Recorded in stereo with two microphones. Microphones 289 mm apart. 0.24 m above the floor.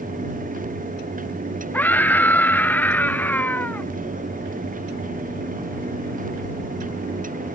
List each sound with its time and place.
1.7 s a scream: 5° left (ahead or behind)